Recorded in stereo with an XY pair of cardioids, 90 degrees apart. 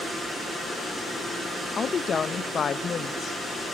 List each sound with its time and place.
1.8 s a woman speaking: 50° left, 0.8 m